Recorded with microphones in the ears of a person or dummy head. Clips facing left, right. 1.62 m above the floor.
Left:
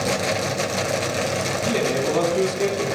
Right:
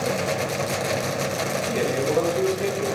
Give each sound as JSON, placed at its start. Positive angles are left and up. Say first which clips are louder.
{"t": 1.6, "sound": "a man speaking", "louder": "left 2 dB", "side_deg": 85, "distance_m": 4.0}